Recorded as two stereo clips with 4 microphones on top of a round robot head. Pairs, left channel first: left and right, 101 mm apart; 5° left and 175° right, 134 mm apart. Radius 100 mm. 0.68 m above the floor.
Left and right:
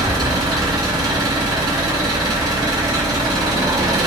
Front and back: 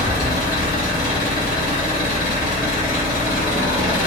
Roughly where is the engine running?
Ahead right.